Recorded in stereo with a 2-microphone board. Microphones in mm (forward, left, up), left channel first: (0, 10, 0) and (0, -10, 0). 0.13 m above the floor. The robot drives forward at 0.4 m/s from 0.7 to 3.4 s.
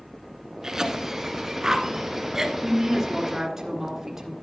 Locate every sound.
0.6 s a cough: 30° right (ahead or behind), 1.2 m; by 2.5 s 25° right (ahead or behind), 1.5 m
2.6 s a woman speaking: 25° right (ahead or behind), 1.6 m; by 4.3 s 20° right (ahead or behind), 1.7 m